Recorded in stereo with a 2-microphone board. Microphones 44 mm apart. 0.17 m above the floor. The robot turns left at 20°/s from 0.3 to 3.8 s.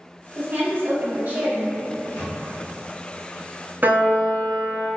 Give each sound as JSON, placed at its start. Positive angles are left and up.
{"t": 0.3, "sound": "a woman speaking", "side_deg": -45, "distance_m": 1.4}
{"t": 1.9, "sound": "a microwave", "side_deg": 45, "distance_m": 1.7}
{"t": 3.8, "sound": "a piano", "side_deg": -45, "distance_m": 0.6}